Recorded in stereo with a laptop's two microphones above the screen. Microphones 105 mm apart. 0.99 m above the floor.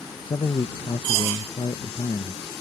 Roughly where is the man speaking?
Left.